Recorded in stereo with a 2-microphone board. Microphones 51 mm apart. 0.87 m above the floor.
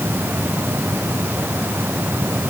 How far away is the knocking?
No knocking in this recording.